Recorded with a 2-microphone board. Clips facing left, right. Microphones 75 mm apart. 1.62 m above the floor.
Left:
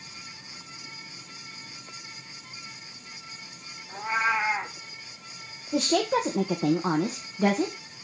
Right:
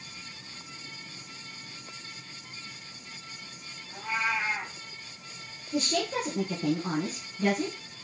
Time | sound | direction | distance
3.9 | a cat meowing | 45° left (ahead or behind) | 1.2 m
5.7 | a woman speaking | 80° left | 1.3 m